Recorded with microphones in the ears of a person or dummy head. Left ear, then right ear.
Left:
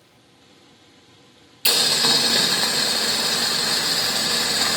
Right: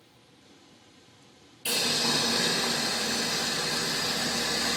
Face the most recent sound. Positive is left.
turn(degrees=45)  # may be behind; listen again after turning